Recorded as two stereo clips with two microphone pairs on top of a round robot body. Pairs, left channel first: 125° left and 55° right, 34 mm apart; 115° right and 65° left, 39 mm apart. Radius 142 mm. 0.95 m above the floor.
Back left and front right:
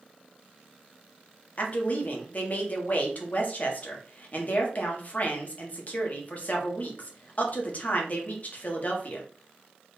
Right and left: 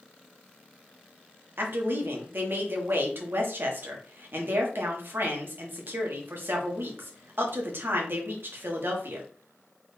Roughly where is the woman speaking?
Left.